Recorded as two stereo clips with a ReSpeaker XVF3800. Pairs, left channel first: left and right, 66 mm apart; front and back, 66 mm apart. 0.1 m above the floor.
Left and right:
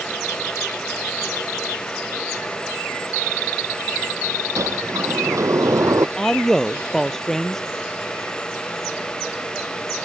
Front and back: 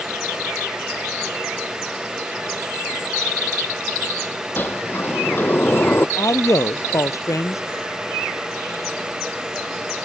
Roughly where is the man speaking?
Ahead.